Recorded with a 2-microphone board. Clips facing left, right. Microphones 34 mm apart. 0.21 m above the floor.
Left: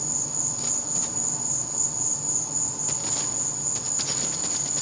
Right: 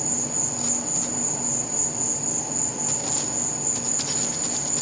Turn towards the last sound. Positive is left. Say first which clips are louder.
# right 5 dB
turn(degrees=-50)  # may be behind; listen again after turning